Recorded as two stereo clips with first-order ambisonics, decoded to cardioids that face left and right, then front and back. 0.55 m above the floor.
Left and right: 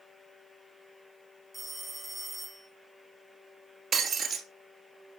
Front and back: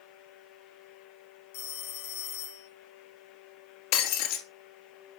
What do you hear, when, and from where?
1.5 s a phone ringing: straight ahead, 1.7 m
3.9 s breaking glass: 20° right, 1.9 m